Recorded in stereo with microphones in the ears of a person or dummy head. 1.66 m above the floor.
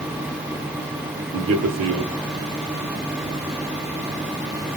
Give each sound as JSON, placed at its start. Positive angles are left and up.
{"t": 1.3, "sound": "a man speaking", "side_deg": -80, "distance_m": 1.0}